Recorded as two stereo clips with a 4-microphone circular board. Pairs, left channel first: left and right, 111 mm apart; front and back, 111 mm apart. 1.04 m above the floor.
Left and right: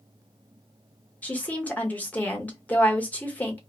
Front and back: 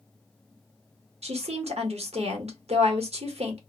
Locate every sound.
1.2 s a woman speaking: 165° left, 0.9 m